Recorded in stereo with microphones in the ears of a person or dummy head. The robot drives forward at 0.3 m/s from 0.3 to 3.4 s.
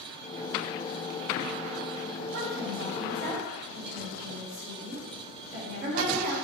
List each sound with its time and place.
2.3 s a woman speaking: 75° right (ahead or behind), 2.0 m; by 6.3 s 65° right (ahead or behind), 2 m